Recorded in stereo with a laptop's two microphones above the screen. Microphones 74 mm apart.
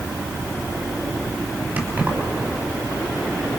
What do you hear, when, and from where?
1.8 s keys jangling: 25° right (ahead or behind), 5.5 m